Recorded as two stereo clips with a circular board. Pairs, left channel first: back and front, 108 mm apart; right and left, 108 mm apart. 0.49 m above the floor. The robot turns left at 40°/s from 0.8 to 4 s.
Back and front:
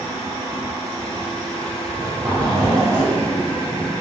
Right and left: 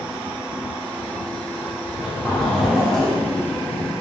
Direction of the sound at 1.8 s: 30° left.